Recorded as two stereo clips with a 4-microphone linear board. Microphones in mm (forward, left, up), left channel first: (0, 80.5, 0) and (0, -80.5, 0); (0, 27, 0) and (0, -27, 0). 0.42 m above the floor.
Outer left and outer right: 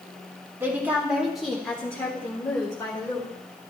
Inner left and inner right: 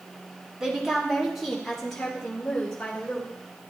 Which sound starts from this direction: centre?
A woman speaking, at 0.6 s.